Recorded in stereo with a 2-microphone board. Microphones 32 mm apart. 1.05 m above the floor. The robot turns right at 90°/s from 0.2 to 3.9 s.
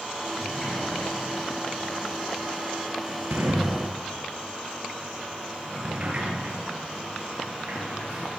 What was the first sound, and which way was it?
A sliding door, centre (ahead or behind).